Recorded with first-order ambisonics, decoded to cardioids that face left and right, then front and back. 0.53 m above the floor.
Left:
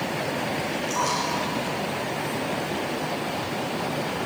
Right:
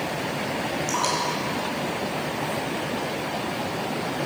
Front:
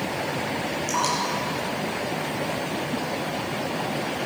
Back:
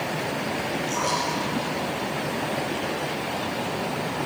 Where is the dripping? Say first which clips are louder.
Even, front 2 dB; 50° right, 7.5 m.